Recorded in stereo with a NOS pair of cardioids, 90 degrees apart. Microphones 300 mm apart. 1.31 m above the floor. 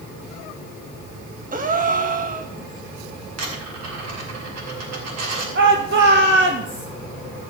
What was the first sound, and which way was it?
A gasp, 30° right.